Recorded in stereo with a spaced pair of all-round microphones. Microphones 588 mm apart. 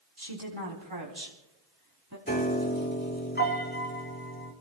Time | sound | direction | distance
0.2 | a woman speaking | 65° right (ahead or behind) | 4 m
2.3 | a piano | 15° left (ahead or behind) | 2.5 m